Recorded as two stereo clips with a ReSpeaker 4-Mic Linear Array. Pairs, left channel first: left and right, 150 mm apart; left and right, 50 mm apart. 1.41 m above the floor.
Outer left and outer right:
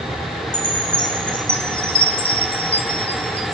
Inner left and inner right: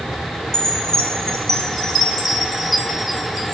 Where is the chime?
10° left (ahead or behind), 1.1 m.